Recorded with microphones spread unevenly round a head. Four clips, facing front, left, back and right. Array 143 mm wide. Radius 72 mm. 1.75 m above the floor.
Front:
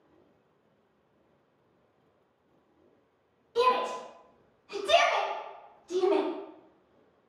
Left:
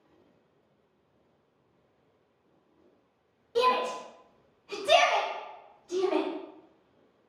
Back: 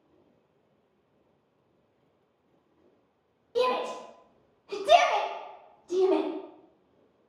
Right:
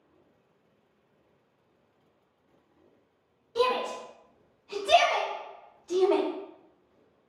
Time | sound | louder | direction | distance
3.5 | a shout | left 1 dB, front 1 dB | 145° left | 1.3 m